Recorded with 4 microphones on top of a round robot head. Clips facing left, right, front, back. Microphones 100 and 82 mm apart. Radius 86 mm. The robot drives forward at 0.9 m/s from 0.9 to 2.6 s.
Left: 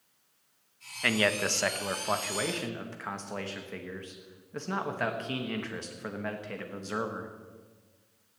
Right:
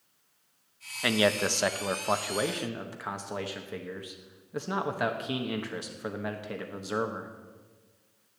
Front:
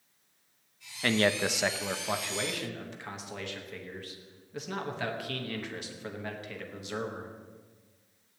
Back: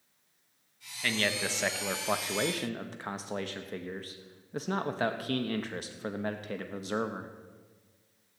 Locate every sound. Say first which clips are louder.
1.0 s a man speaking: right 2 dB, front 5 dB; 20° right, 1.1 m; by 7.3 s 160° right, 1.1 m